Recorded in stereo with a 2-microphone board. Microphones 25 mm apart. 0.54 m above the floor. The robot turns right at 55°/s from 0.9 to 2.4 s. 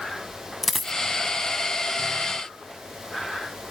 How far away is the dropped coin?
About 0.6 m.